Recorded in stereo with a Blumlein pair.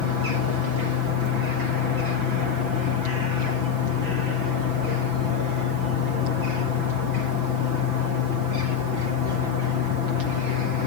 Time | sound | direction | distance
0.0 | a fan | 45° left | ?